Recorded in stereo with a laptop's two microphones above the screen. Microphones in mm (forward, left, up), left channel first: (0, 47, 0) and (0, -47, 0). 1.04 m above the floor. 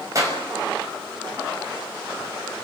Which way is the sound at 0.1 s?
35° right (ahead or behind).